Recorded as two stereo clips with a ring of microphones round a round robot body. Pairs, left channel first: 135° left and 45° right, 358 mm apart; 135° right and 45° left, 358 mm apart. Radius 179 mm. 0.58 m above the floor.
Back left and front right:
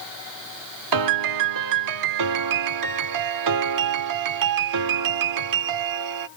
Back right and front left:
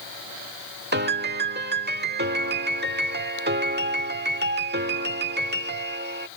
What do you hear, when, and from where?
0.9 s a piano: 15° right